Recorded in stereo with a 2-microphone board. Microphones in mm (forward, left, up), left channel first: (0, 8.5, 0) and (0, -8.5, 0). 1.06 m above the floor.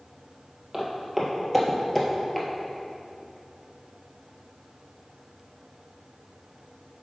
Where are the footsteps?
10° right (ahead or behind), 1.6 m; by 2.5 s 20° left (ahead or behind), 1.2 m.